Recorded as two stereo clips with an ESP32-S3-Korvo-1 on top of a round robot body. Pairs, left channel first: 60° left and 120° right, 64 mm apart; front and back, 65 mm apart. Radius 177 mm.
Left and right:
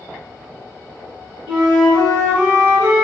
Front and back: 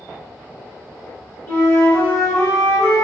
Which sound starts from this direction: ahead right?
A flute, at 1.5 s.